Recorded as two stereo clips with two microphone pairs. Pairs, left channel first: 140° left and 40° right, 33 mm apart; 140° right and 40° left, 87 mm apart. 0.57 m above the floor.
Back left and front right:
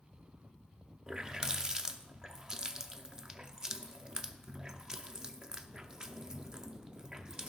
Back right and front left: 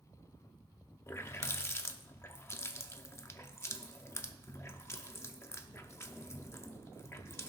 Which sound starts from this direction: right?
A running tap, at 1.1 s.